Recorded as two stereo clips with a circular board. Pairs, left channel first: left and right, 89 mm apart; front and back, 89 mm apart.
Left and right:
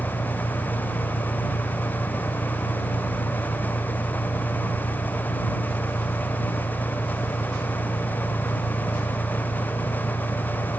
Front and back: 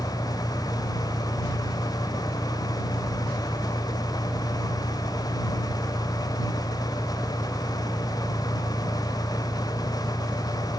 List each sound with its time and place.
0.0 s an engine running: 70° left